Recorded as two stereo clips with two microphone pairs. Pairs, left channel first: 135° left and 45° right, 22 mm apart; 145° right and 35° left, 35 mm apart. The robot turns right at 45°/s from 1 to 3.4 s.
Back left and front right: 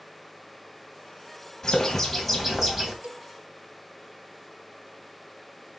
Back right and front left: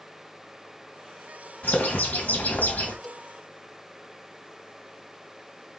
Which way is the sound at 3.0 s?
60° right.